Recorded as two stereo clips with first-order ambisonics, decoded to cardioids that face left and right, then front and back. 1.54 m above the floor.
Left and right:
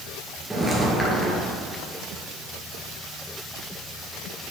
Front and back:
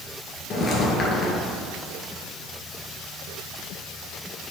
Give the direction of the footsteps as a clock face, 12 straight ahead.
12 o'clock.